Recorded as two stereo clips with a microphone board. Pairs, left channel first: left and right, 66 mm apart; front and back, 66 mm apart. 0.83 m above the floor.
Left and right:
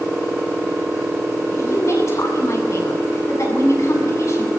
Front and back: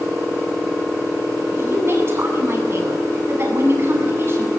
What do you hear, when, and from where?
1.6 s a woman speaking: 130° left, 7.5 m